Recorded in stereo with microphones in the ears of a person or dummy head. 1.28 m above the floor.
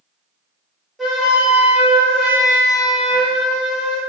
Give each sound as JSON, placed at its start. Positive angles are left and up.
{"t": 1.0, "sound": "a flute", "side_deg": 0, "distance_m": 0.6}